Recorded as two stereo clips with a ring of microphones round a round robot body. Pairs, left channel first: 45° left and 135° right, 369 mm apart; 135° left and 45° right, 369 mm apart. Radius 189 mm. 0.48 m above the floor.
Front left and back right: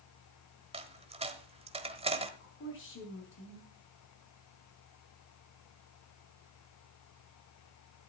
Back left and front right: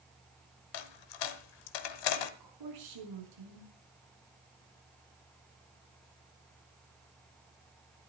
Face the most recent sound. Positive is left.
turn(degrees=-15)